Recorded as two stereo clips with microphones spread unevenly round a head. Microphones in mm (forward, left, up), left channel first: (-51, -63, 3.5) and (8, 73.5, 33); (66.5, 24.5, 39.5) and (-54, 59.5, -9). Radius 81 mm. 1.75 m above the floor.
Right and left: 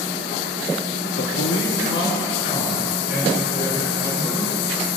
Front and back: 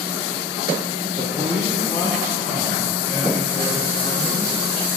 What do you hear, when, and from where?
1.2 s a man speaking: 125° right, 1.1 m; by 4.5 s 70° right, 4.5 m